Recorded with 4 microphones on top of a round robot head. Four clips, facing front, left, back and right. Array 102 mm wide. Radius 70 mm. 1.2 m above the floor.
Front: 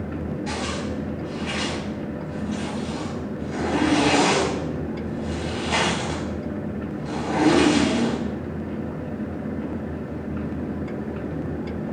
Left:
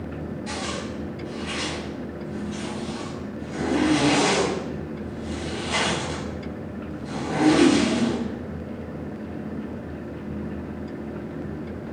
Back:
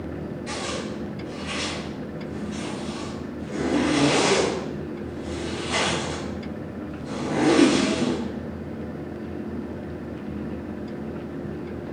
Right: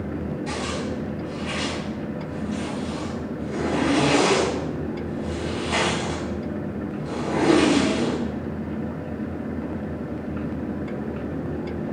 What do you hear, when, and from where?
0.5 s a zipper: 10° left, 4.5 m